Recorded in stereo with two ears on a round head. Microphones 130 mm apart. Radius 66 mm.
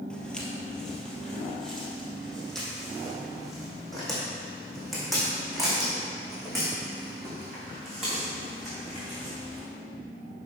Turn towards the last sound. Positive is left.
turn(degrees=0)  # may be behind; listen again after turning